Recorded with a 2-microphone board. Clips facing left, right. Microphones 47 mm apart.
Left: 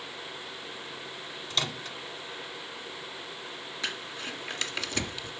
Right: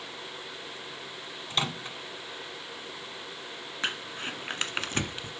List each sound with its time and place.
1.5 s a microwave: 20° right (ahead or behind), 1.1 m
3.8 s crumpling: 35° right (ahead or behind), 1.5 m